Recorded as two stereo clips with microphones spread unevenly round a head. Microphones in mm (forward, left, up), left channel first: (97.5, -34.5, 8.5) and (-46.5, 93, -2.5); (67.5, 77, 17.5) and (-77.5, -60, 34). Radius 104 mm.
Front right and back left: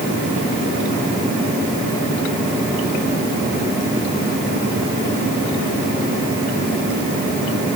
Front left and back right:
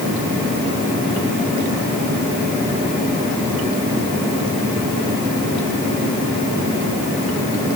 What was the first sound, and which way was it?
Only background noise.